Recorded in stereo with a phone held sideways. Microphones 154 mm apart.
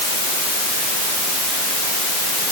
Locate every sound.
Only background noise.